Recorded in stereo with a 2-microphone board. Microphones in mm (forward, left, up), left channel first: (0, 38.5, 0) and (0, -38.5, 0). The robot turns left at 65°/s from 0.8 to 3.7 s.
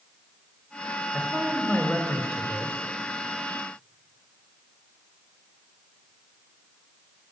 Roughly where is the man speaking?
Centre.